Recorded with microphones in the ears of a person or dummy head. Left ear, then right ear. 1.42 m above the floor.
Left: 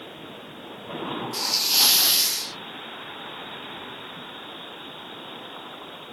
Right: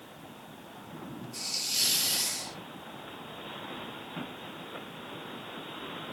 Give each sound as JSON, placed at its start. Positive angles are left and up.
{"t": 1.3, "sound": "a hiss", "side_deg": 60, "distance_m": 0.8}